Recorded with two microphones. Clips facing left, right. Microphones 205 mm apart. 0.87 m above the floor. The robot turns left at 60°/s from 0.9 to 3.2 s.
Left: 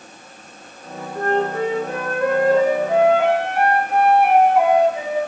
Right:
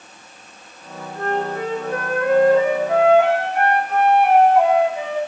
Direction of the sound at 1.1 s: 140° left.